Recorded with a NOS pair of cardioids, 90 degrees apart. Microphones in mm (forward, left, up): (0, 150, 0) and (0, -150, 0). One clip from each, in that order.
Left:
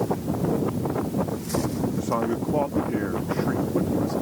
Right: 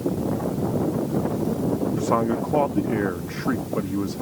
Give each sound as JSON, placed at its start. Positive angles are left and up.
{"t": 1.9, "sound": "a man speaking", "azimuth_deg": -30}